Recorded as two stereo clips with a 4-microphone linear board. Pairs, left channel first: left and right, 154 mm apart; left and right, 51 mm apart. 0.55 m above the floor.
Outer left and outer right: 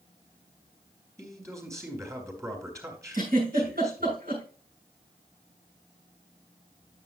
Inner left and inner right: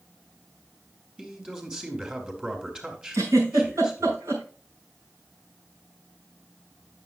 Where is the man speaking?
20° right (ahead or behind), 3 m.